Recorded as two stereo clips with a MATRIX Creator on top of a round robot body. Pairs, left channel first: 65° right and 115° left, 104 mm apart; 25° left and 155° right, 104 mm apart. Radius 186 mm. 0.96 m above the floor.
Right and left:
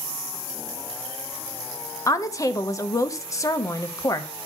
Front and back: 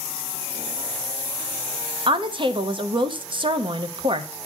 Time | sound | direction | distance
2.1 | a woman speaking | 125° right | 1.2 m